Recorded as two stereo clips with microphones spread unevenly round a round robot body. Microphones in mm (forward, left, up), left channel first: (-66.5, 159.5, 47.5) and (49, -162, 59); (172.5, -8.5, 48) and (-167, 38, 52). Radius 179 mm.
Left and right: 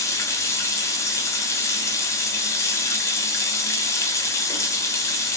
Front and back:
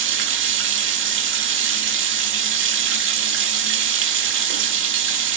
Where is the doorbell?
No doorbell in this recording.